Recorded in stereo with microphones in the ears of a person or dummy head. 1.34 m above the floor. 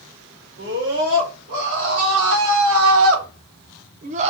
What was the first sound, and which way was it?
A scream, 60° right (ahead or behind).